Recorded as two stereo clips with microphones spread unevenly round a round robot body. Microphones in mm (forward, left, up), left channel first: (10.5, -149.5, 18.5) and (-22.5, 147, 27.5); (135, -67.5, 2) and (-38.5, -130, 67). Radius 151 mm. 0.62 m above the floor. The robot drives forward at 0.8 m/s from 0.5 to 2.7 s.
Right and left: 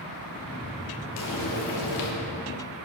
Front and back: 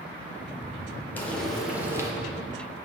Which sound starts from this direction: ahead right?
Frying, at 1.2 s.